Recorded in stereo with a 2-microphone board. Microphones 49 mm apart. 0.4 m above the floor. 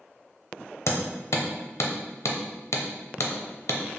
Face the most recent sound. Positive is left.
turn(degrees=75)  # may be behind; listen again after turning